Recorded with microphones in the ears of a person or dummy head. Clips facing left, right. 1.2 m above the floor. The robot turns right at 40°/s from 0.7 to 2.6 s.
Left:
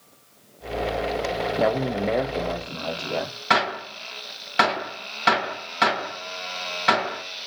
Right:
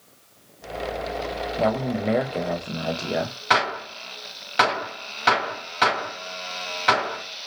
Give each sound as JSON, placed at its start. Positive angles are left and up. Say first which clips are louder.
{"t": 1.6, "sound": "a man speaking", "louder": "even", "azimuth_deg": 155, "distance_m": 0.5}
{"t": 3.5, "sound": "a gunshot", "louder": "left 1 dB", "side_deg": 5, "distance_m": 1.7}